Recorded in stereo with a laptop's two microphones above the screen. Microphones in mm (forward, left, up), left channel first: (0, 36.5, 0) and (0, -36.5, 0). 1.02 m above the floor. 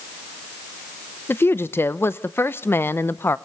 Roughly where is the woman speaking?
Left.